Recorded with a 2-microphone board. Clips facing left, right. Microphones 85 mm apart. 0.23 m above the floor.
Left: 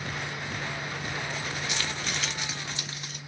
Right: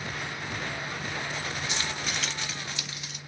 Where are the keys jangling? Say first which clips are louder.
Even; 30° right (ahead or behind), 0.8 m; by 3.2 s 45° left (ahead or behind), 1.1 m.